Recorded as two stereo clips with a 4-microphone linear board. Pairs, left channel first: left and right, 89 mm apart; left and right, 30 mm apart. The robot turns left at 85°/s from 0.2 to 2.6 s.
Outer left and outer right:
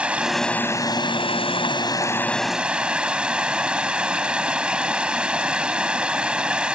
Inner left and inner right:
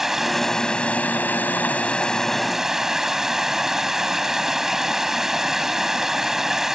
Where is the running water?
170° right; by 6.8 s 10° right.